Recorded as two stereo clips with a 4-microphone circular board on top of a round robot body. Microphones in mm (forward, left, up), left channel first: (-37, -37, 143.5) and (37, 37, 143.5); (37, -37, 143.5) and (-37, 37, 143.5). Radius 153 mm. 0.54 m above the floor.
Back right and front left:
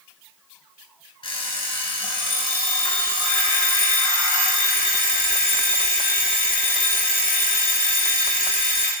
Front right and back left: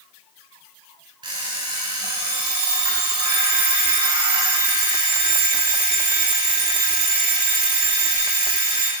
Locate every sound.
1.2 s an alarm clock: straight behind, 1.7 m